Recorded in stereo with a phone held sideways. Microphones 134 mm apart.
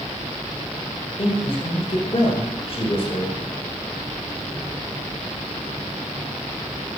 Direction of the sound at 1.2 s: 40° left (ahead or behind).